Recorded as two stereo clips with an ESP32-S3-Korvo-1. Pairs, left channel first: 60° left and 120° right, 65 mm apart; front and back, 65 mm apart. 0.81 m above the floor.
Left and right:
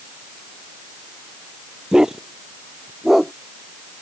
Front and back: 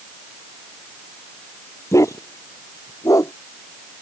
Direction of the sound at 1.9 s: 40° right.